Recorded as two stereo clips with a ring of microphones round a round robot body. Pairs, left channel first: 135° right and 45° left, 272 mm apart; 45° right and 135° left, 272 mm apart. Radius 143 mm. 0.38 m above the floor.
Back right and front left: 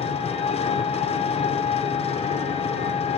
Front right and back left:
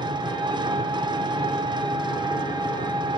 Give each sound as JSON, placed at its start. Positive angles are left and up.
{"t": 0.0, "sound": "an engine running", "azimuth_deg": -170, "distance_m": 1.0}